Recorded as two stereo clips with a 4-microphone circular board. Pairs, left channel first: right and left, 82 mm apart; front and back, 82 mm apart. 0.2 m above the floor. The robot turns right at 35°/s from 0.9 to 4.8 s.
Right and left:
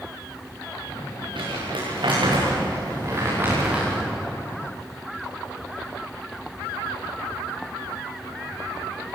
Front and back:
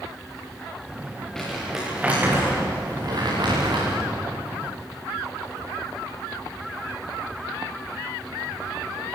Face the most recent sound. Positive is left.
turn(degrees=-155)